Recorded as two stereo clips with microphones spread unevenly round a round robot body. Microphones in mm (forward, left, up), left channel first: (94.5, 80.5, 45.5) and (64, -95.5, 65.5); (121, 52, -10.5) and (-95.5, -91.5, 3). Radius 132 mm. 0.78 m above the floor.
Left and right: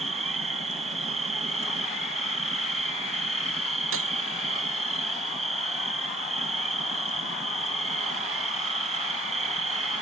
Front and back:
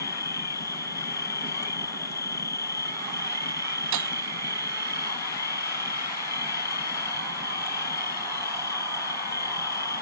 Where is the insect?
45° right.